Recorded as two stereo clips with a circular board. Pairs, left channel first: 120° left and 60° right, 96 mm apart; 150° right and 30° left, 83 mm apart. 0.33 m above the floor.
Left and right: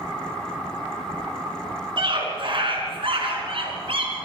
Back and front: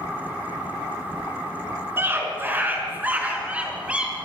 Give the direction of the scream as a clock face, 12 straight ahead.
1 o'clock.